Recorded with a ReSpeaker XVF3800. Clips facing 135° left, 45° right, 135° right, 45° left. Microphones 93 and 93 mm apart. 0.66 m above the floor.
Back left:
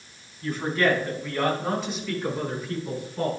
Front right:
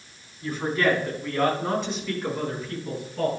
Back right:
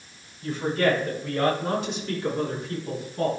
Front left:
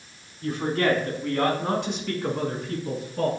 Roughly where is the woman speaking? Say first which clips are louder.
Even, even; ahead left.